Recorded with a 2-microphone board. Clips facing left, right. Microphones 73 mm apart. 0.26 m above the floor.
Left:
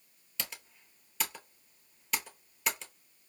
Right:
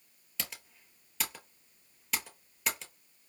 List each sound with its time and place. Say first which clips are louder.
0.4 s typing on a keyboard: even; centre (ahead or behind), 0.8 m